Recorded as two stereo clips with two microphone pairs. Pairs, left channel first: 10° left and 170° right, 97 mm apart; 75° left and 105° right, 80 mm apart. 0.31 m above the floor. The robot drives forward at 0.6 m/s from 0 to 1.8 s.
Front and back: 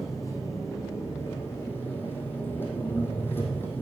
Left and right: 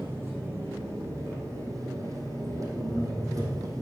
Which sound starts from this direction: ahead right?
An engine running, at 0.0 s.